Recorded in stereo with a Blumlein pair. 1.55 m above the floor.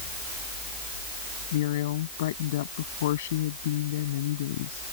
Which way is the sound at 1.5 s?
55° left.